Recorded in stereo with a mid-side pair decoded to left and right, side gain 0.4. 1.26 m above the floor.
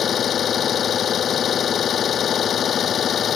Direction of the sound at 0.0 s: 60° left.